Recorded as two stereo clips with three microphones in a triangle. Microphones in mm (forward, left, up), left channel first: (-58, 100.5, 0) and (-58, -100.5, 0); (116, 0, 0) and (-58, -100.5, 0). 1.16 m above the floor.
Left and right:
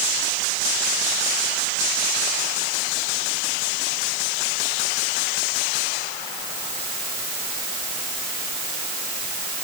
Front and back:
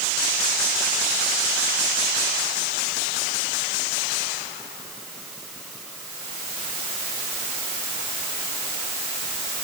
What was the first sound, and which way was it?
Only background noise.